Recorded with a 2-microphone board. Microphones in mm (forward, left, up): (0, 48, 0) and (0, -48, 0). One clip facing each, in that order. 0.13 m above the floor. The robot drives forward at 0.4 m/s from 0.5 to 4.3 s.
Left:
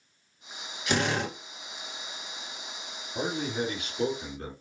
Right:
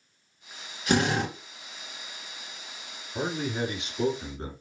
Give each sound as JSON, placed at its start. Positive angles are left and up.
{"t": 0.9, "sound": "a drill", "side_deg": -35, "distance_m": 2.0}
{"t": 3.1, "sound": "a man speaking", "side_deg": -30, "distance_m": 1.8}